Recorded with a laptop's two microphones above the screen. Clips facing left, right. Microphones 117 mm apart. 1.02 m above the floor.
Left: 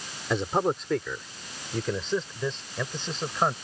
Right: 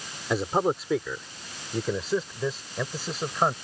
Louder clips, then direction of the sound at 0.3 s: Right 1 dB; 5° right (ahead or behind).